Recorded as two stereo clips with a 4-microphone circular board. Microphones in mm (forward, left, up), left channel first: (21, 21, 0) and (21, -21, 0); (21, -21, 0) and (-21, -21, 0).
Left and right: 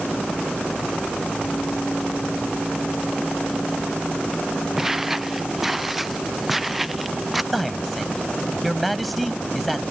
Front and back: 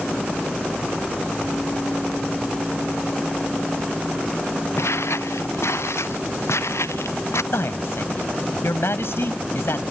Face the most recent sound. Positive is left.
turn(degrees=5)